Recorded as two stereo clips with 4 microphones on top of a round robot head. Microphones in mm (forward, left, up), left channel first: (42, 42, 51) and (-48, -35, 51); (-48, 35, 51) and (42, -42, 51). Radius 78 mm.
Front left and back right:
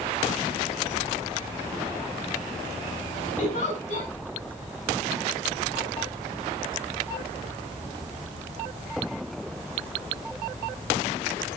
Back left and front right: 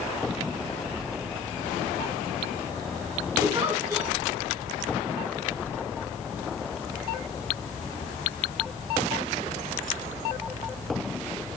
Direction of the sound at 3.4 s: 25° left.